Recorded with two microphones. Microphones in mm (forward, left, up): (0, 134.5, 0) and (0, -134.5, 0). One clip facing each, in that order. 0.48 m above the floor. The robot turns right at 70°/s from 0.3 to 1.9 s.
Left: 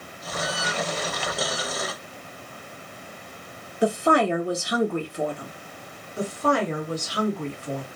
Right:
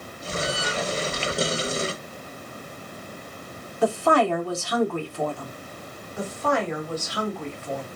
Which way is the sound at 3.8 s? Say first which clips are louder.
Even; 20° left (ahead or behind).